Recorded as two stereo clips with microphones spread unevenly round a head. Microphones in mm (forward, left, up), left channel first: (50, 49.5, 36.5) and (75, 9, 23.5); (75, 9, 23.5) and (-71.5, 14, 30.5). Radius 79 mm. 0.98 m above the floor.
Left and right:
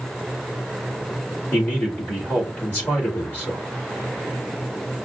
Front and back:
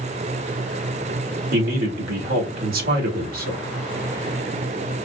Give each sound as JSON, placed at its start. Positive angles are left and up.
{"t": 1.5, "sound": "a man speaking", "azimuth_deg": -170, "distance_m": 1.9}